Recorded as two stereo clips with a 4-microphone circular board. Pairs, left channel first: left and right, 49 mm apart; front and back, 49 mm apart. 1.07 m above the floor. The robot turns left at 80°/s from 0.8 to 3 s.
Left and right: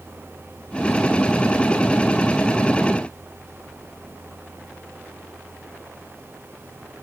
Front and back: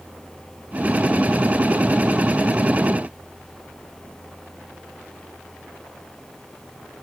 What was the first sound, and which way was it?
Only background noise.